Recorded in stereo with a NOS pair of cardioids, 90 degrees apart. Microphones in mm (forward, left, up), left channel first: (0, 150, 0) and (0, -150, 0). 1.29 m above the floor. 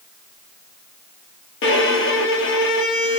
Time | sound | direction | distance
1.6 | a violin | 45° left | 1.0 m